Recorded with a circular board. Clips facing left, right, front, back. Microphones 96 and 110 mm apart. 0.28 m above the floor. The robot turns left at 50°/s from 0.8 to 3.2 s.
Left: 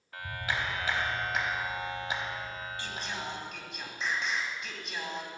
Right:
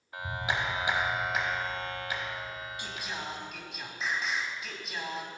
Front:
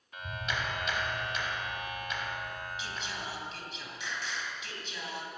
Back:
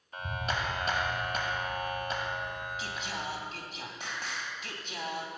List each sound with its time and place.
0.1 s a clap: 150° right, 1.1 m; by 3.5 s 90° left, 1.1 m
2.8 s singing: 155° right, 2 m; by 5.3 s 175° right, 2 m